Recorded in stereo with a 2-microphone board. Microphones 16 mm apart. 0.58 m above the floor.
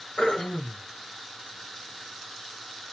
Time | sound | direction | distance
0.2 | throat clearing | 60° left (ahead or behind) | 1.0 m